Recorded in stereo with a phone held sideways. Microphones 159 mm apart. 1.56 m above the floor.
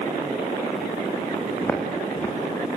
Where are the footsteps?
15° left (ahead or behind), 6 m; by 2.7 s 20° left (ahead or behind), 6 m.